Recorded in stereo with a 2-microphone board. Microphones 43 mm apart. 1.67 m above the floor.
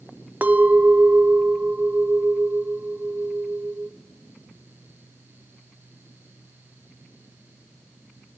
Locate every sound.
0.4 s a clink: 40° right (ahead or behind), 1.1 m